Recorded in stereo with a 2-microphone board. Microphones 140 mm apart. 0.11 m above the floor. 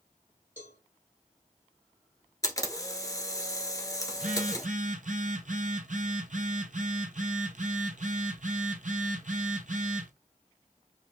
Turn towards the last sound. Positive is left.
turn(degrees=-65)  # may be behind; listen again after turning